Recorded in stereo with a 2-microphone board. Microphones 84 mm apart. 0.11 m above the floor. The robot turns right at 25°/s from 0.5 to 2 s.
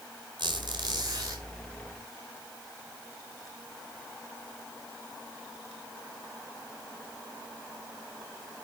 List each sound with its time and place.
0.4 s a squeak: 65° right (ahead or behind), 4 m; by 1.4 s 40° right (ahead or behind), 4 m